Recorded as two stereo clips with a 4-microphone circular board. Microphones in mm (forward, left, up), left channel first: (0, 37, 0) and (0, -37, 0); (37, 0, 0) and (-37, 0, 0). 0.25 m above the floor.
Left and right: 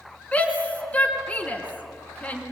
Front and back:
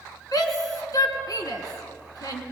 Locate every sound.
0.3 s a shout: 20° left, 3.5 m